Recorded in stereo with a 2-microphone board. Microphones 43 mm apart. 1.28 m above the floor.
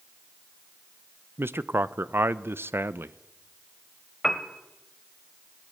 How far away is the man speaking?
About 0.7 m.